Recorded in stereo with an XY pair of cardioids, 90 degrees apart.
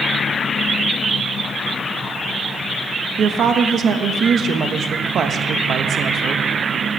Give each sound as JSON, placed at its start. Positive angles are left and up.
{"t": 3.2, "sound": "a woman speaking", "azimuth_deg": -65, "distance_m": 1.0}